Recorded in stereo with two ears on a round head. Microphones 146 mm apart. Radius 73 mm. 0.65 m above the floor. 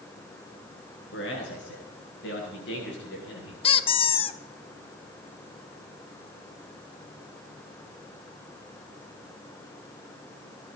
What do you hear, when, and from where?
1.1 s a man speaking: 75° left (ahead or behind), 8 m; by 3.5 s 65° left (ahead or behind), 8 m
3.6 s a squeak: 30° left (ahead or behind), 0.7 m